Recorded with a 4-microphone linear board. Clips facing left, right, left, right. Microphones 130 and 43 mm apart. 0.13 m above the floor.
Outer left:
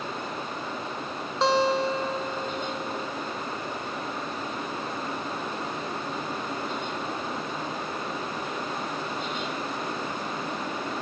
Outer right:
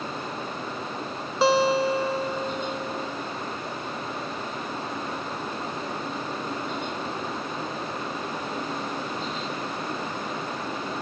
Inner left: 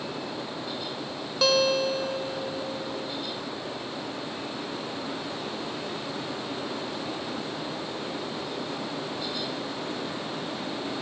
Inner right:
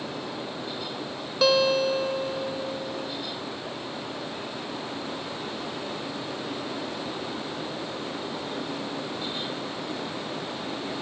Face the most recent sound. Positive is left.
turn(degrees=-5)  # may be behind; listen again after turning